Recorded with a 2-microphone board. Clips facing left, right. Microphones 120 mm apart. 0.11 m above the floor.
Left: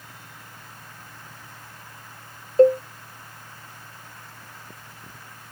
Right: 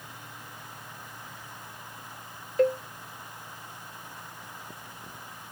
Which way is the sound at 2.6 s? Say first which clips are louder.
Left 9 dB; 30° left (ahead or behind).